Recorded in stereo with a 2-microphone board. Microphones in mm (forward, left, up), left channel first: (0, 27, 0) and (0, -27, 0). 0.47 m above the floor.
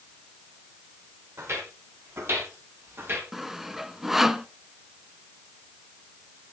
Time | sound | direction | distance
1.4 | footsteps | 55° right (ahead or behind) | 8.5 m
3.3 | sawing | 5° right (ahead or behind) | 0.8 m